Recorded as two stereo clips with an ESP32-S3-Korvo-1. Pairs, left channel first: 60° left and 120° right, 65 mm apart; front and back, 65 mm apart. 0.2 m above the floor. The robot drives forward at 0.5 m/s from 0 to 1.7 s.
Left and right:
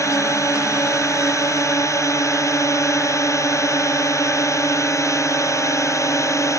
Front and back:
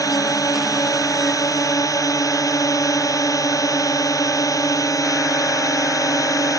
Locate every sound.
0.0 s a drone: 20° left; by 6.6 s 25° left